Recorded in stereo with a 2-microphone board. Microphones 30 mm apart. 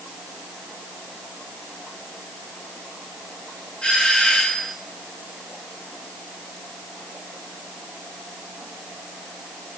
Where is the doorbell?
40° left (ahead or behind), 9.5 m.